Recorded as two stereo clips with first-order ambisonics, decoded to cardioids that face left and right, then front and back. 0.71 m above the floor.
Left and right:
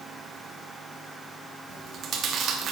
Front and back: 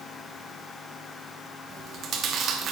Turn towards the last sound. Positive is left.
turn(degrees=-135)